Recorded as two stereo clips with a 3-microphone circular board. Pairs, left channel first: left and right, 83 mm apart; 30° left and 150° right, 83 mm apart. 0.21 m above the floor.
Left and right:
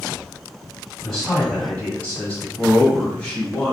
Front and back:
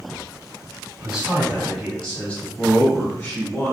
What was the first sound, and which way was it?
A man speaking, 170° left.